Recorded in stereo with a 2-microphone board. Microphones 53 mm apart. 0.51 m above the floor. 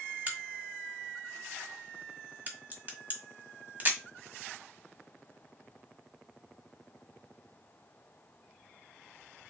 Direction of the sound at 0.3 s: 30° right (ahead or behind).